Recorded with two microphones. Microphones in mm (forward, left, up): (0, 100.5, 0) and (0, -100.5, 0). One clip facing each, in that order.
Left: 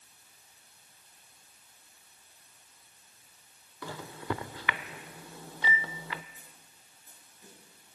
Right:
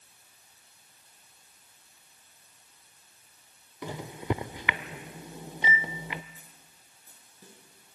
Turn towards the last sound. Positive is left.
turn(degrees=-35)  # may be behind; listen again after turning